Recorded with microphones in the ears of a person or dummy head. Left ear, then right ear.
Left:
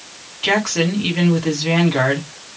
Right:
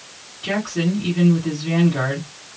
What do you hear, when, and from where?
0.4 s a woman speaking: 30° left (ahead or behind), 1.3 m